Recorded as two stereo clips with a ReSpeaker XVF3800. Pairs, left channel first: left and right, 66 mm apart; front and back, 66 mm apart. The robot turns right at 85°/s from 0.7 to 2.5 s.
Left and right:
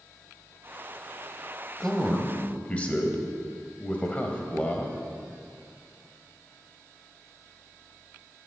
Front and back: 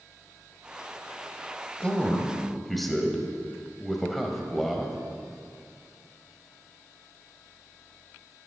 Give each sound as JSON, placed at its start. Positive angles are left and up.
{"t": 1.8, "sound": "a man speaking", "azimuth_deg": 20, "distance_m": 1.3}